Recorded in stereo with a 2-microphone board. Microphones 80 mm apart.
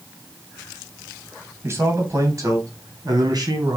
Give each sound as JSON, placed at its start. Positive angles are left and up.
{"t": 1.6, "sound": "a man speaking", "side_deg": -35, "distance_m": 3.0}